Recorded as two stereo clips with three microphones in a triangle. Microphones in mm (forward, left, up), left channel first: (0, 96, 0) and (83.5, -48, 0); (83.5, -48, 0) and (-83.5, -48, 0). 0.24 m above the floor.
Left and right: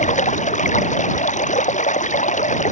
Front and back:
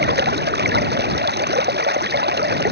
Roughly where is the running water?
Behind.